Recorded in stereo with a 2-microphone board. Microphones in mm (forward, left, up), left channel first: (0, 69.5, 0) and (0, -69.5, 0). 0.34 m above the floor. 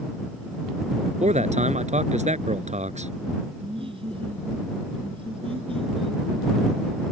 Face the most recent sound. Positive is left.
turn(degrees=-40)  # may be behind; listen again after turning